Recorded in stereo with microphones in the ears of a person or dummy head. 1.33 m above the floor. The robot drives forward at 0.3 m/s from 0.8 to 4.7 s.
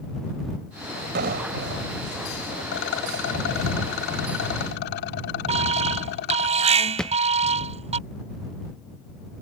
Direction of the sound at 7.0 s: Centre (ahead or behind).